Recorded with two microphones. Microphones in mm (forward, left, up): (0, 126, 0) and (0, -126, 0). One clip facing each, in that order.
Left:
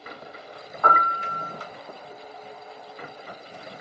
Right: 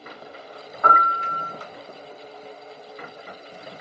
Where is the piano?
20° right (ahead or behind), 1.1 m.